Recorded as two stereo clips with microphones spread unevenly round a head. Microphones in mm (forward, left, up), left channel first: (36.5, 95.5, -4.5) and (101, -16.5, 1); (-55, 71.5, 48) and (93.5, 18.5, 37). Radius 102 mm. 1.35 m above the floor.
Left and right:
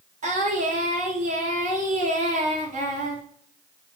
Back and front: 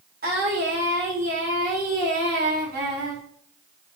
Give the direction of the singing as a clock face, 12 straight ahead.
2 o'clock.